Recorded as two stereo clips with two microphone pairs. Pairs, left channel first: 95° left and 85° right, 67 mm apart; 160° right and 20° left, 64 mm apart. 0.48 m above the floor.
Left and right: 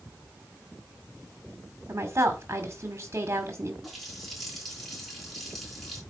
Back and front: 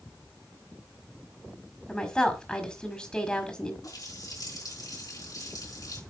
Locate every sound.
1.9 s a woman speaking: 95° right, 1.6 m
3.8 s a running tap: 175° right, 4.5 m